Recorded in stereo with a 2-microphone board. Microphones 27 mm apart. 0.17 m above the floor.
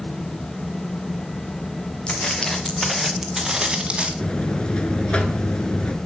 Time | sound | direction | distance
2.1 | footsteps | 35° left (ahead or behind) | 2 m
4.2 | a buzzer | 50° left (ahead or behind) | 1.0 m